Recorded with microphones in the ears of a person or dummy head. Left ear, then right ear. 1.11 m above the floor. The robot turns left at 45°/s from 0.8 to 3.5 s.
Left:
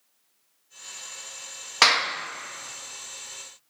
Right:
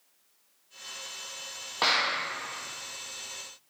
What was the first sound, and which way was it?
A clap, 70° left (ahead or behind).